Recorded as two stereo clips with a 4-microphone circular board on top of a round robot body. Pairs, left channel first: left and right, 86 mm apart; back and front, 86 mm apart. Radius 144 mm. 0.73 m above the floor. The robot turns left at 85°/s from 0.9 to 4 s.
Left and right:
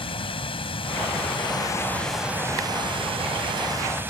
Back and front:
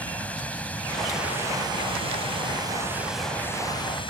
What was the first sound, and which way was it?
Running water, 105° left.